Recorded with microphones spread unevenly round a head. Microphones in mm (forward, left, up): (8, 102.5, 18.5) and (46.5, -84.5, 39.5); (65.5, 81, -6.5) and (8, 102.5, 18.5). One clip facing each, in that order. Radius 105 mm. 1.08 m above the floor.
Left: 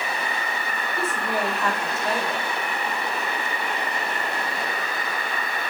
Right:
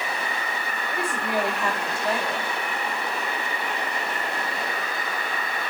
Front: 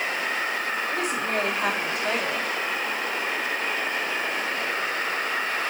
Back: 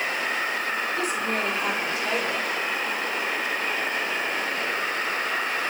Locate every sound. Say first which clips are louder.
0.9 s a woman speaking: right 1 dB, even; straight ahead, 5.5 m